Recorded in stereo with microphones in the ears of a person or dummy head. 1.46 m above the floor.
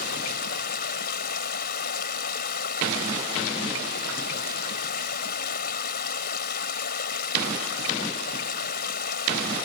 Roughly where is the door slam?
I don't hear a door slam.